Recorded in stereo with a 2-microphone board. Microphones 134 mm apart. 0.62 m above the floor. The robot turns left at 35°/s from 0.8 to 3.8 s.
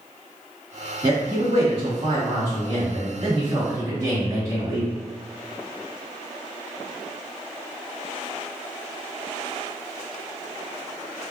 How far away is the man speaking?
About 1.7 m.